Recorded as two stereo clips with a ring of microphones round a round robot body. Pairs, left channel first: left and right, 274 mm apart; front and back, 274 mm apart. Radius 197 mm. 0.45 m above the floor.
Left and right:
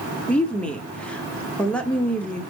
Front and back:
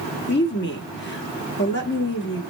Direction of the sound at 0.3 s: 5° left.